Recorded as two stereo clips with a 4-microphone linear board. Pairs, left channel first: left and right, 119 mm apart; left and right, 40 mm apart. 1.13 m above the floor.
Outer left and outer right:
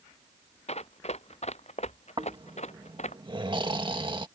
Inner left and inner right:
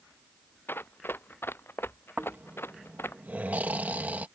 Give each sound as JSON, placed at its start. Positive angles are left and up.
{"t": 0.7, "sound": "running footsteps", "side_deg": 65}
{"t": 2.2, "sound": "snoring", "side_deg": -45}